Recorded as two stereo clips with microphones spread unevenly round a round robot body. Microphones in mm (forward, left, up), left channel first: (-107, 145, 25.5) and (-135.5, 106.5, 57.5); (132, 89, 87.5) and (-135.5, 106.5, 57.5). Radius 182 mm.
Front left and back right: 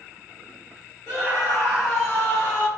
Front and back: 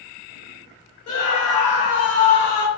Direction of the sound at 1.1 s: 75° right.